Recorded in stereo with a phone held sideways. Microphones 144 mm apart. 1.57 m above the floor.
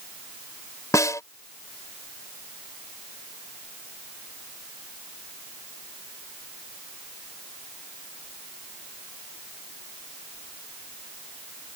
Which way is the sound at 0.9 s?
20° left (ahead or behind).